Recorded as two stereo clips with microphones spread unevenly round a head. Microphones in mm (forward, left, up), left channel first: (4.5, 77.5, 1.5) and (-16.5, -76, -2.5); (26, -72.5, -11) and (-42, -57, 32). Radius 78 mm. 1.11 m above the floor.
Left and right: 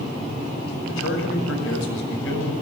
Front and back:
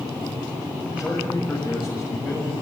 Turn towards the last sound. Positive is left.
turn(degrees=85)